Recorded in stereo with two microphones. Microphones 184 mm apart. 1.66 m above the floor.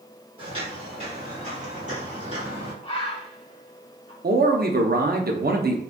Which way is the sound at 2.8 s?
30° left (ahead or behind).